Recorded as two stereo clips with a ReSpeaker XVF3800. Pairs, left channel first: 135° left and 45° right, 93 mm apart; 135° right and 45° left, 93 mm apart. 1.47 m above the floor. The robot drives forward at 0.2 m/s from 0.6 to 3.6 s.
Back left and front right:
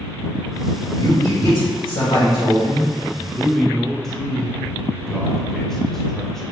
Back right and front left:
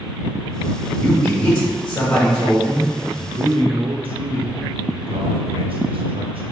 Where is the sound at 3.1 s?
45° left, 0.6 m; by 6.5 s 50° left, 0.6 m.